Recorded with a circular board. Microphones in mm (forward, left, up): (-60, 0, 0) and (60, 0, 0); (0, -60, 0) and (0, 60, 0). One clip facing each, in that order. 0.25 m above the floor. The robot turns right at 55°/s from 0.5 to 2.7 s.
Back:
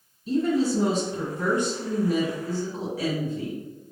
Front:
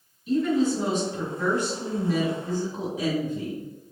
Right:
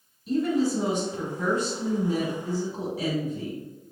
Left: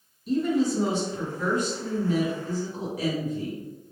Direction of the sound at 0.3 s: Straight behind.